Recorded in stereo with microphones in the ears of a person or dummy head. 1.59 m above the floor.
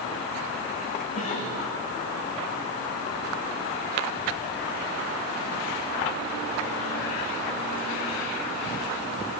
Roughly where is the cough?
Left.